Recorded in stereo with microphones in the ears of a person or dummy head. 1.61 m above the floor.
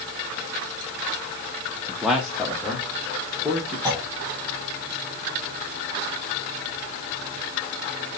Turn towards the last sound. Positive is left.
turn(degrees=-15)  # may be behind; listen again after turning